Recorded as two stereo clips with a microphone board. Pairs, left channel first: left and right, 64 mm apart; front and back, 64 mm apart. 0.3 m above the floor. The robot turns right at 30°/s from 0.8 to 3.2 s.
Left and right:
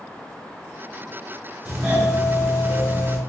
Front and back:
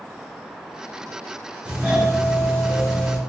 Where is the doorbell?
155° right, 1.8 m; by 3.2 s 105° right, 1.8 m.